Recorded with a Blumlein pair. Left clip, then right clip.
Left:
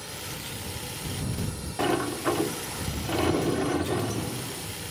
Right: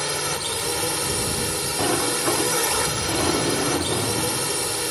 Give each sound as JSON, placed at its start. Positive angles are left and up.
{"t": 0.0, "sound": "a drone", "azimuth_deg": -35}
{"t": 1.8, "sound": "a sliding door", "azimuth_deg": -5}